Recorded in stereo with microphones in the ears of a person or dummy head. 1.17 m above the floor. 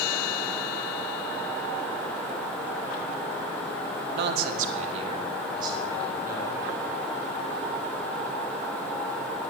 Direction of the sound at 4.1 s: 70° right (ahead or behind).